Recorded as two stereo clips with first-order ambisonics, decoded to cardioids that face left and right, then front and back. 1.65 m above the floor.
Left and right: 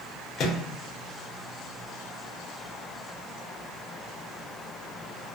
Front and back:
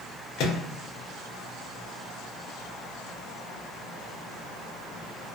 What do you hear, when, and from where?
0.4 s a microwave: 40° left, 0.6 m